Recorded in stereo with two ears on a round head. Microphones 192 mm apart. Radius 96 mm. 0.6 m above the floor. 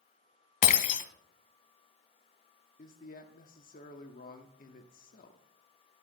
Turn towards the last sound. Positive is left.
turn(degrees=45)  # may be behind; listen again after turning